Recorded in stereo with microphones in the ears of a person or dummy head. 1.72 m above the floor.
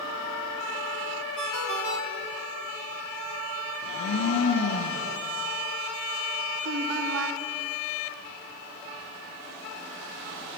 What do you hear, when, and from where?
1.4 s a ringtone: 55° right (ahead or behind), 2 m
3.8 s a blender: 70° left (ahead or behind), 2 m
6.6 s a woman speaking: 85° right, 1.5 m